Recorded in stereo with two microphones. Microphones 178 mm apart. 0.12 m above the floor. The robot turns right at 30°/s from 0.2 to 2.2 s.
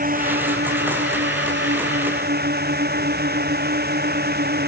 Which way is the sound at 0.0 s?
125° right.